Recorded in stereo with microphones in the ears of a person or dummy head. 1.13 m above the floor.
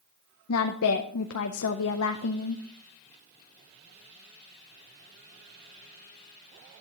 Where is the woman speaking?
70° left (ahead or behind), 0.6 m.